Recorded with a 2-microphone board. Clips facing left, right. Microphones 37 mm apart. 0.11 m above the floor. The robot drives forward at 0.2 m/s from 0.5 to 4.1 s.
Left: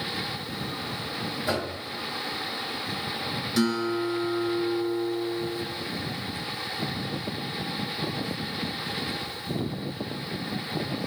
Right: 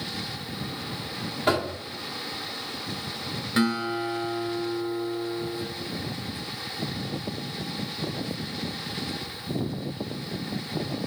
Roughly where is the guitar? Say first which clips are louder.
Even; right.